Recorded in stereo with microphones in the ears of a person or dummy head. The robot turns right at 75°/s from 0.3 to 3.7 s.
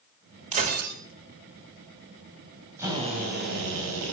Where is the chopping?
No chopping in this recording.